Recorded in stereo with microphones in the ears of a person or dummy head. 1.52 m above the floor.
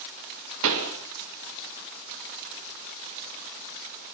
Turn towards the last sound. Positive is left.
turn(degrees=-80)